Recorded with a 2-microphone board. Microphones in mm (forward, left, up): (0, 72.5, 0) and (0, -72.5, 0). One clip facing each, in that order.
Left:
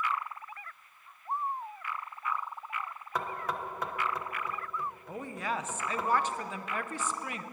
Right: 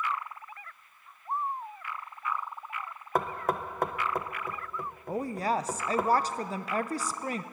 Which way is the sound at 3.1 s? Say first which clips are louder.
Right 5 dB; 50° right (ahead or behind).